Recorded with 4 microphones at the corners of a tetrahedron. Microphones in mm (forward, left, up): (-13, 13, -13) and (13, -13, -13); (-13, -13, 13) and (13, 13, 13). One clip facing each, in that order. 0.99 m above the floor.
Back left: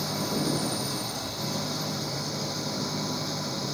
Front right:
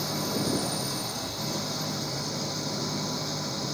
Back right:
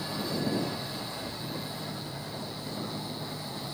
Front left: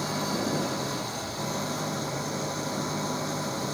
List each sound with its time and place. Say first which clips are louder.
0.0 s an engine running: back left 1 dB, front left 3 dB; 50° left